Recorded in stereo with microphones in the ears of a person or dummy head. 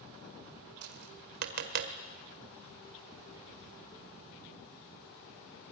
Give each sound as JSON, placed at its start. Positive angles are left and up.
{"t": 0.8, "sound": "tapping", "side_deg": -55, "distance_m": 1.9}